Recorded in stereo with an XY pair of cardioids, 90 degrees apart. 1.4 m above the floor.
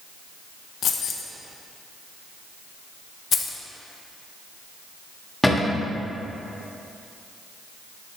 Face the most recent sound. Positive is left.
turn(degrees=10)